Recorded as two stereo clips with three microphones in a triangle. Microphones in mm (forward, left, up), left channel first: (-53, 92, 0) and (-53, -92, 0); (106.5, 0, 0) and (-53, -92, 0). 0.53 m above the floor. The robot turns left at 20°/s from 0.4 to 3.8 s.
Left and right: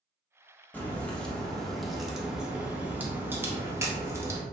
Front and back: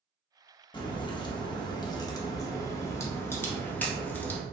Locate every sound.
0.7 s a crack: 25° left, 0.5 m; by 4.4 s 35° right, 0.5 m